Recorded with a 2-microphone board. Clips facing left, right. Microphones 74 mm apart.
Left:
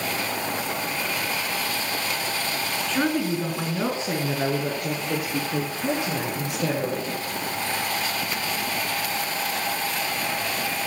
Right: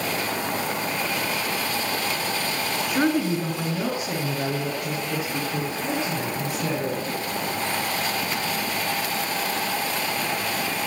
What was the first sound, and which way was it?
A woman speaking, 15° right (ahead or behind).